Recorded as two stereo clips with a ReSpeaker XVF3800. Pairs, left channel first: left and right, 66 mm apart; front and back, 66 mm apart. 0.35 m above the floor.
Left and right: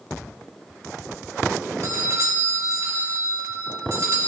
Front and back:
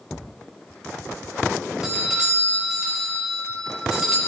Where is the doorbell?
105° right, 2 m.